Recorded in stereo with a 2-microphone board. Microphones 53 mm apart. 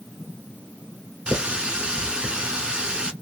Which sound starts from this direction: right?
A running tap, at 1.3 s.